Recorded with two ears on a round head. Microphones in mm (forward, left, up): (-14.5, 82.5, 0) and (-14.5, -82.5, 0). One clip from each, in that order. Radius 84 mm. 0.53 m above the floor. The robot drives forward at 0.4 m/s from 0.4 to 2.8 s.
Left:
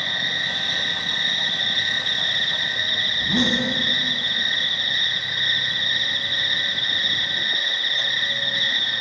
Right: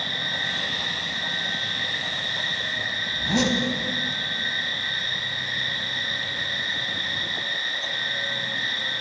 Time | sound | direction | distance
0.0 | an insect | 50° left (ahead or behind) | 2 m
3.1 | a zipper | 65° right (ahead or behind) | 1.0 m